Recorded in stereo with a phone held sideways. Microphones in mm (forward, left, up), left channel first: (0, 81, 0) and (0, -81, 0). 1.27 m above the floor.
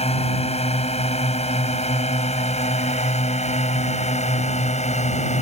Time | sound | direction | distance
0.0 | a drone | 40° left (ahead or behind) | ?